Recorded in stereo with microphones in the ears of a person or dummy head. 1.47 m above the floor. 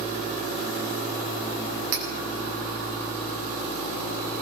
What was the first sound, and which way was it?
Cutlery clinking, 80° right.